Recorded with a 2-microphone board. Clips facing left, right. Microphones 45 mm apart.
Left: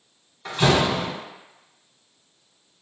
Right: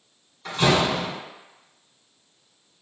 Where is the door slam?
10° left (ahead or behind), 1.2 m.